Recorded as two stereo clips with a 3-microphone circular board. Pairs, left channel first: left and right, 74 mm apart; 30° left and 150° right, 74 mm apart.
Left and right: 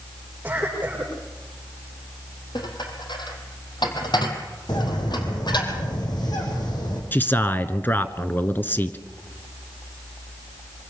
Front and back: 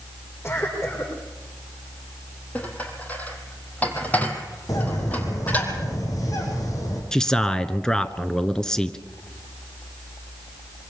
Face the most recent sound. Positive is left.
turn(degrees=100)